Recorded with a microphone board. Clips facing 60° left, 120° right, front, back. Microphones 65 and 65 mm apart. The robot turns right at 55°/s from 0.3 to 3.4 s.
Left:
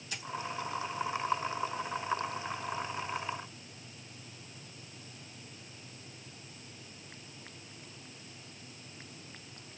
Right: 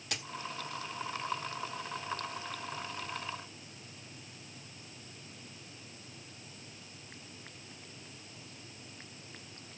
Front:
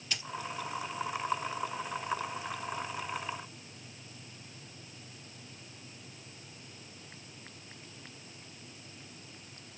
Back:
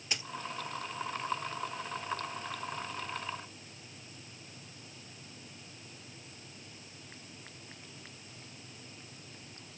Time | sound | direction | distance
0.1 | a dropped coin | 110° right | 2.0 m